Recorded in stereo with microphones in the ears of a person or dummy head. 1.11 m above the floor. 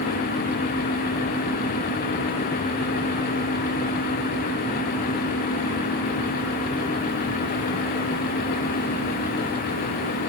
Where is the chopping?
No chopping in this recording.